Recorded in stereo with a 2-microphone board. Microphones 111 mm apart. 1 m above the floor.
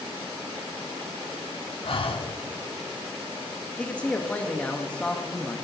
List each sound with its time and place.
1.8 s breathing: 55° left (ahead or behind), 0.9 m
3.8 s a man speaking: 15° left (ahead or behind), 1.1 m